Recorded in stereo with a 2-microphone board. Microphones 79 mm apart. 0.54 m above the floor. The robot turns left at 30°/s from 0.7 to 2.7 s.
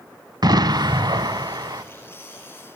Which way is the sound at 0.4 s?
75° right.